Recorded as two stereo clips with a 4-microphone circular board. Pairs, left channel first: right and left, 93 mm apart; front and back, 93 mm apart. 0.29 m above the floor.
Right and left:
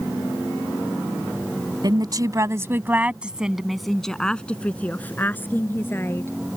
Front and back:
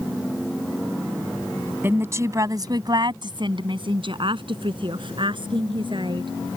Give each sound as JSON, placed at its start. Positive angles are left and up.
{"t": 1.8, "sound": "a woman speaking", "azimuth_deg": 115}